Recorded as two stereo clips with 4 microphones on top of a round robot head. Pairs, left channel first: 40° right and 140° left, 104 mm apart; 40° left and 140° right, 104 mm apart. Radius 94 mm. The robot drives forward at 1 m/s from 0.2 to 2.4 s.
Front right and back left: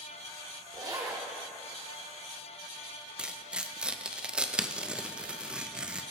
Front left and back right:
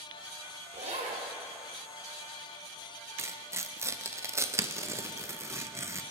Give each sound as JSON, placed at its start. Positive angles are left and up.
{"t": 0.7, "sound": "a zipper", "azimuth_deg": -165, "distance_m": 1.5}
{"t": 3.2, "sound": "tearing paper", "azimuth_deg": -150, "distance_m": 0.7}